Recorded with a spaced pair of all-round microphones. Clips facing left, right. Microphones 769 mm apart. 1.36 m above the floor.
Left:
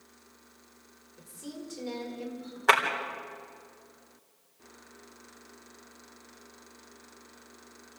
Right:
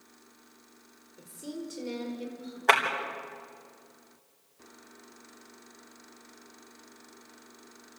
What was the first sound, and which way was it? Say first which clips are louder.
A woman speaking: right 3 dB; 25° left (ahead or behind).